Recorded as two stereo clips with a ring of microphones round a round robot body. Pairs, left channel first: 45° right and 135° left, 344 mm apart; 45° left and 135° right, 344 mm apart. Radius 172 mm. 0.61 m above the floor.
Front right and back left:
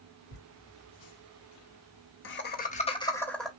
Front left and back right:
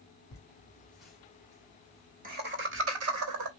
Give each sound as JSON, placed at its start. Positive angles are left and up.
{"t": 0.3, "sound": "laughter", "azimuth_deg": -35, "distance_m": 1.9}